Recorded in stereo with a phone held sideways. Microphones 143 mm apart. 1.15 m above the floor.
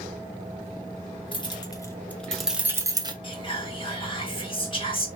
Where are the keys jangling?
35° left (ahead or behind), 1.1 m; by 3.1 s 30° right (ahead or behind), 0.9 m.